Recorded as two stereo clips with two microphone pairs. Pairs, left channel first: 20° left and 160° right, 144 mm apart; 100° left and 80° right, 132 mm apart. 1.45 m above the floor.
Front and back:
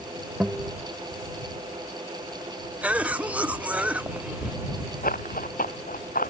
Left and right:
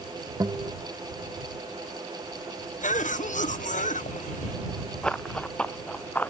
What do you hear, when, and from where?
0.4 s a guitar: 90° right
2.8 s a cough: 120° left
5.0 s running footsteps: 15° left; by 6.3 s 20° left